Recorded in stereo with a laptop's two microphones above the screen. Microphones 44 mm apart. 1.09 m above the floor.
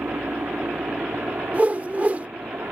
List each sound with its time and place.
0.0 s a helicopter: 65° right (ahead or behind)
1.5 s a whoosh: 40° right (ahead or behind)